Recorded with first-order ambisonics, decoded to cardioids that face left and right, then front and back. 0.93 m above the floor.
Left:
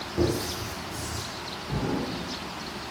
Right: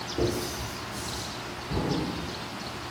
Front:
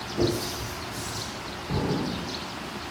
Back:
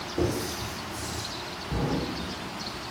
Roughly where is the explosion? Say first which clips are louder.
Right 1 dB, front 2 dB; ahead left.